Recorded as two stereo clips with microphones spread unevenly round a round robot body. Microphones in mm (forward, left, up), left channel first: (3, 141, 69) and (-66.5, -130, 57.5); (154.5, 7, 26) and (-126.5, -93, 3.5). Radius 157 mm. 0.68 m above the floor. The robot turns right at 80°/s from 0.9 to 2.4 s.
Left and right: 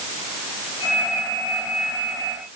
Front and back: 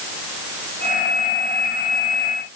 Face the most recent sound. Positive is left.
No sound to turn to.